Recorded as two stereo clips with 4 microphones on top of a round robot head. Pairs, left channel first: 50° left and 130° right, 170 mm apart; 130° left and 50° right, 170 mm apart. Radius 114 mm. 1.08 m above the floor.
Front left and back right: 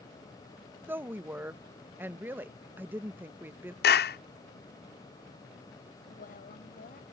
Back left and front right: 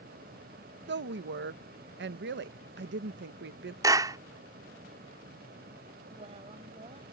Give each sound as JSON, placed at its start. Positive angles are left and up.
{"t": 0.9, "sound": "a woman speaking", "azimuth_deg": -50}
{"t": 3.8, "sound": "a clap", "azimuth_deg": 20}
{"t": 6.1, "sound": "a woman speaking", "azimuth_deg": 5}